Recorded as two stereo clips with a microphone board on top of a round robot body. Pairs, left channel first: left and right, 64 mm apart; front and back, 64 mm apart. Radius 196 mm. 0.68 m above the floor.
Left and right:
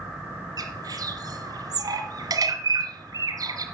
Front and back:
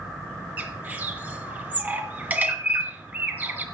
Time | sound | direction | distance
0.6 | a bird | 115° right | 3 m